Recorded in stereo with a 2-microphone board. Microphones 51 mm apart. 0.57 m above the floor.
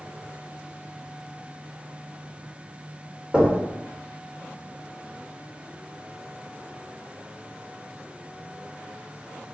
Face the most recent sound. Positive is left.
turn(degrees=-5)  # may be behind; listen again after turning